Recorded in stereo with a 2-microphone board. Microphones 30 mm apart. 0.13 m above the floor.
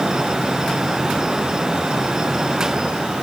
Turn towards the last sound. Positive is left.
No sound to turn to.